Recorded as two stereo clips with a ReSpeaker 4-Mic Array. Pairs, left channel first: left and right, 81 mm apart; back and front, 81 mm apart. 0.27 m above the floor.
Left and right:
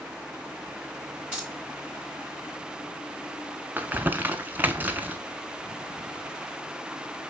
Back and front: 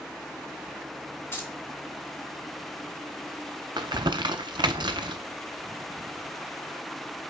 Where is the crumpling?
20° right, 0.6 m.